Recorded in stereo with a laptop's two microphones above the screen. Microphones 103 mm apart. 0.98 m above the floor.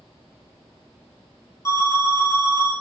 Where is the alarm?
30° left (ahead or behind), 0.9 m.